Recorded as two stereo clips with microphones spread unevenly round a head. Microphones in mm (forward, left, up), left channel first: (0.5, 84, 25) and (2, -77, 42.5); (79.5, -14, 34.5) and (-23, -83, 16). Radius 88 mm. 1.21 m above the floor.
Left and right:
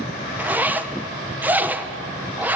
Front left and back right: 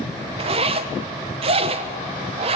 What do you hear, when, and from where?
0.4 s a zipper: 170° right, 1.0 m